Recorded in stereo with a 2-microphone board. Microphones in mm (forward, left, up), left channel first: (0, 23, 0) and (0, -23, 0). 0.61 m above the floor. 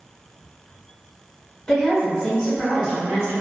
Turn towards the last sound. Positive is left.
turn(degrees=0)  # may be behind; listen again after turning